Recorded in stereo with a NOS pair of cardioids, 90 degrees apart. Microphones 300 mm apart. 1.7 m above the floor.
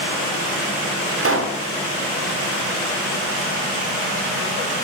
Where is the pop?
50° right, 3.5 m.